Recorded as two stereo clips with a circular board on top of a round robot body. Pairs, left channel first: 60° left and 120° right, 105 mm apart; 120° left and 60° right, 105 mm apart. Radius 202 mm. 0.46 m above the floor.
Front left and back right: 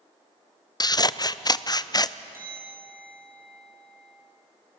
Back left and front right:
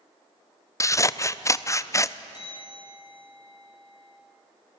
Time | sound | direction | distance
0.8 | scissors | 80° left | 0.7 m
2.3 | a bell | 170° left | 6 m